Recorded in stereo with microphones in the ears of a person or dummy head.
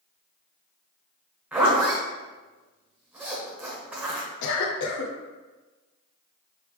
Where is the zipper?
Centre (ahead or behind), 0.9 m.